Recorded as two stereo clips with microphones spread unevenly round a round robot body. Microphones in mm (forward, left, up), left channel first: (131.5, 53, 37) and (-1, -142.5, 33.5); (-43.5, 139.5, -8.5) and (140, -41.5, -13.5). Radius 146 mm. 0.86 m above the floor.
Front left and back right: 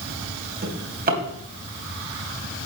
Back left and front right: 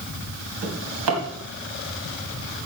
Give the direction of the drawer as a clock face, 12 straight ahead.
2 o'clock.